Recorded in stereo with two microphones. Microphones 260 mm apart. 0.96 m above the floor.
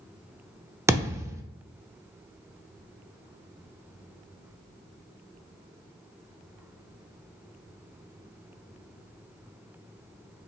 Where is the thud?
10° right (ahead or behind), 0.6 m.